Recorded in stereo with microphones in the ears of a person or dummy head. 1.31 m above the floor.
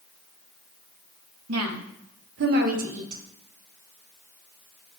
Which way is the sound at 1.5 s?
80° right.